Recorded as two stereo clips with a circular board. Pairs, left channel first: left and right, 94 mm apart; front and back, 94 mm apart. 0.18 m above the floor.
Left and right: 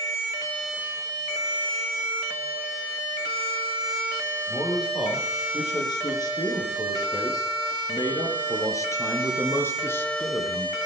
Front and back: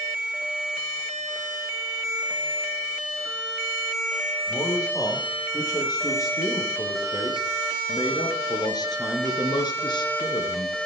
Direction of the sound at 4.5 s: 50° left.